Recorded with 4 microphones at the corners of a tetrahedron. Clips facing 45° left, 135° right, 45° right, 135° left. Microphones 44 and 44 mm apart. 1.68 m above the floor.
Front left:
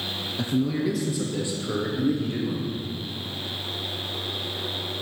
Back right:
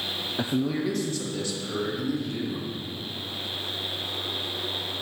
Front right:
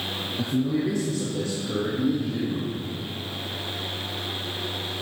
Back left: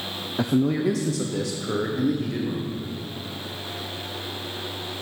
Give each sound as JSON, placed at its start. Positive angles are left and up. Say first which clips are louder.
{"t": 0.4, "sound": "a man speaking", "louder": "front left 2 dB, back left 3 dB", "azimuth_deg": 165, "distance_m": 0.7}